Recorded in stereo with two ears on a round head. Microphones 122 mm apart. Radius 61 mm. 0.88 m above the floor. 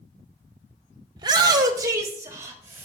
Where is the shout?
30° right (ahead or behind), 0.6 m; by 2.9 s 20° right (ahead or behind), 2.0 m.